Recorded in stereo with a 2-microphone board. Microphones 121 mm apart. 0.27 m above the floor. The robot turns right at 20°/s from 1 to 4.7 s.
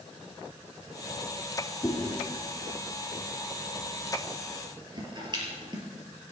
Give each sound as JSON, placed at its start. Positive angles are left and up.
{"t": 1.8, "sound": "chewing", "side_deg": 15, "distance_m": 5.5}